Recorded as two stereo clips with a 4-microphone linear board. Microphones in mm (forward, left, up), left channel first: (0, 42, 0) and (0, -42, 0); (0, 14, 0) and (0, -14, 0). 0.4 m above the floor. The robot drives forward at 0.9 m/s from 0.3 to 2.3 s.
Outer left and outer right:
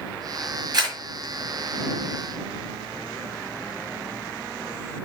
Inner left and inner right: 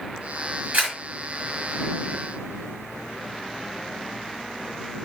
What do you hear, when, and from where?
0.7 s a camera shutter: 55° right (ahead or behind), 5.5 m